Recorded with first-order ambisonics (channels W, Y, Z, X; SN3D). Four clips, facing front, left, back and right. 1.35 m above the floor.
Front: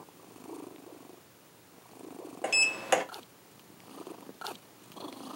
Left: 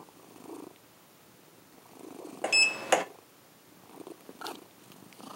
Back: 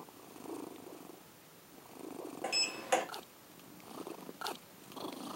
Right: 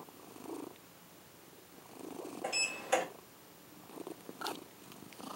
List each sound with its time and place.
2.4 s a sliding door: 60° left, 0.5 m